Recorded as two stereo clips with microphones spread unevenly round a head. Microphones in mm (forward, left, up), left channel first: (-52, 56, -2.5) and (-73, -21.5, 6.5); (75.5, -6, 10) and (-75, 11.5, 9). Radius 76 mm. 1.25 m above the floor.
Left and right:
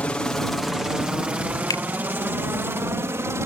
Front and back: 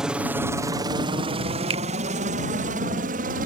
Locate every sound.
0.0 s a helicopter: 95° left; by 3.5 s 160° right
1.7 s a finger snap: 115° left